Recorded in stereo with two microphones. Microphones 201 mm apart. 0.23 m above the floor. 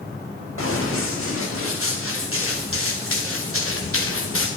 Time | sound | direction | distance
0.6 | running footsteps | 85° left | 3.5 m